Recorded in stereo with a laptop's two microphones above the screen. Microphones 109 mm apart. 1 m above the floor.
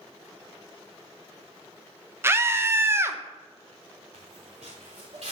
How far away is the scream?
About 1.1 m.